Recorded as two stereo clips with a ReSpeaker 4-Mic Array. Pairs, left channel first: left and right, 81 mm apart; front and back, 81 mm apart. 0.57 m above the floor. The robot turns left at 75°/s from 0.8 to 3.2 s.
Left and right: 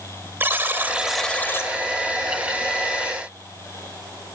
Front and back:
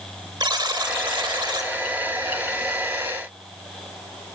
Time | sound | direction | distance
0.4 | a buzzer | 155° right | 1.4 m